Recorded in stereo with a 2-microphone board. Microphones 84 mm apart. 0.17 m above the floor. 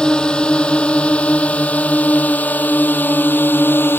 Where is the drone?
10° left (ahead or behind); by 4.0 s 25° left (ahead or behind).